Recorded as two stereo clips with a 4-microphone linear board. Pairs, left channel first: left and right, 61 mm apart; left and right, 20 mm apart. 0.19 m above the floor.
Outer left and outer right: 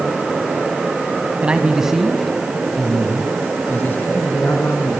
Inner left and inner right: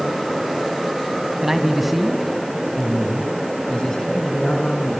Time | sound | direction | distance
1.4 | a man speaking | 20° right (ahead or behind) | 1.6 m